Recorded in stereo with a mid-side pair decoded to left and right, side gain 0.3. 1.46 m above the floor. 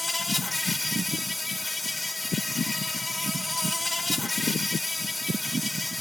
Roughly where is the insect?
Ahead.